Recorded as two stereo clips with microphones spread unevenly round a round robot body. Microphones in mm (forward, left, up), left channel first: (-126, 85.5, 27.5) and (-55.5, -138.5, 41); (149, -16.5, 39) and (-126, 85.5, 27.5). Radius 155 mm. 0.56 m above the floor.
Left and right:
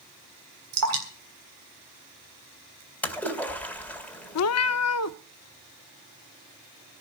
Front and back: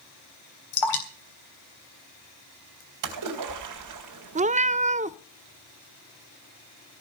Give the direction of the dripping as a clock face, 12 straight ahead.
1 o'clock.